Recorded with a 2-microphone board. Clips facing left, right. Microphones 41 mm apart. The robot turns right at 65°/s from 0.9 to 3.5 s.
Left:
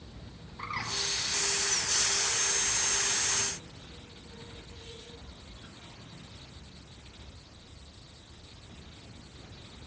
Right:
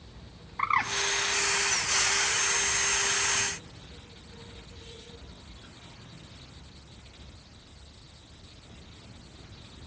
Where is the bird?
50° right (ahead or behind), 0.7 m.